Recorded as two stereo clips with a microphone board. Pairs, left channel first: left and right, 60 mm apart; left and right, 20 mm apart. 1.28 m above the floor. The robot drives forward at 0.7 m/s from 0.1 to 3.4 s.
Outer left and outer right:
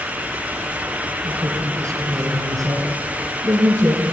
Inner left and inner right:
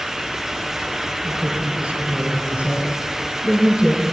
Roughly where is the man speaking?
Right.